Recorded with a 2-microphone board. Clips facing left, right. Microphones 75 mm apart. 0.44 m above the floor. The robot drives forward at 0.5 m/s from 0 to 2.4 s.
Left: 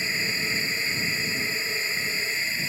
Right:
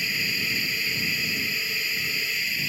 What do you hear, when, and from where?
0.0 s a drone: 30° left (ahead or behind)